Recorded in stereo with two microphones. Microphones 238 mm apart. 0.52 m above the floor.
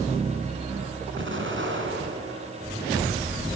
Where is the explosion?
55° right (ahead or behind), 3.5 m.